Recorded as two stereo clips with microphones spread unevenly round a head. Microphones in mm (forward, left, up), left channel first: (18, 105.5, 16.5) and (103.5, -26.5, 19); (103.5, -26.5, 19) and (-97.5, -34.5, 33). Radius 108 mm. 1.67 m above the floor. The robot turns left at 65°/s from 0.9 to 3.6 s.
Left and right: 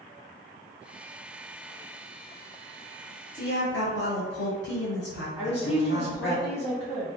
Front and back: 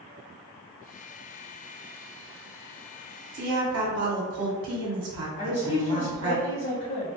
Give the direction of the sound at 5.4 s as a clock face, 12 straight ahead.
10 o'clock.